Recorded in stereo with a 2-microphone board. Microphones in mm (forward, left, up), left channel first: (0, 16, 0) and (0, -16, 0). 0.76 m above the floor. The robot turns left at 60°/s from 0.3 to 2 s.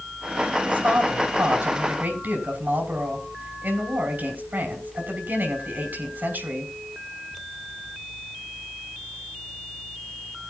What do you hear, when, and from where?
0.7 s a woman speaking: 40° right, 5 m; by 6.7 s 120° right, 5 m